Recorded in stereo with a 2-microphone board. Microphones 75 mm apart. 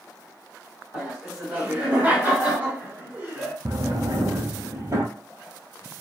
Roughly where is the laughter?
Centre.